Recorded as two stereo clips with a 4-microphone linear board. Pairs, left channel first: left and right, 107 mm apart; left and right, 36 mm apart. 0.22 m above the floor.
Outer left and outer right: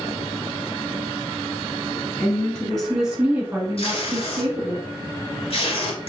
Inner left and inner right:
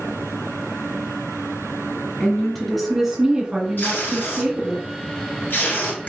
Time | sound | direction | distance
2.2 | a woman speaking | 20° left (ahead or behind) | 1.8 m
3.8 | tape being pulled | 65° left (ahead or behind) | 1.8 m